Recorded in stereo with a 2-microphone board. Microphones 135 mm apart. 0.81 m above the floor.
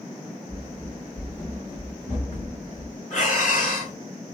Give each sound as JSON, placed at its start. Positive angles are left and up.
{"t": 0.5, "sound": "running footsteps", "side_deg": 65, "distance_m": 1.9}
{"t": 3.1, "sound": "breathing", "side_deg": 65, "distance_m": 3.0}